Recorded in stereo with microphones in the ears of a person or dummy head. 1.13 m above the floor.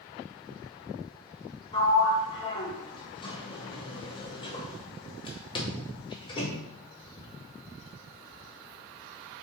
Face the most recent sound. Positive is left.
turn(degrees=30)  # may be behind; listen again after turning